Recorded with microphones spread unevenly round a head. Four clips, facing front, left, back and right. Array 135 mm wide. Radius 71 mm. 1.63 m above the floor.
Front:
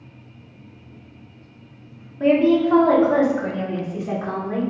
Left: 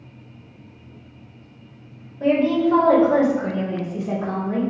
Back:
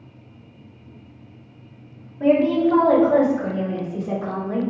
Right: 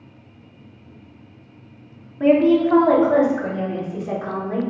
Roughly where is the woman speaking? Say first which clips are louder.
Right 3 dB, front 1 dB; ahead right.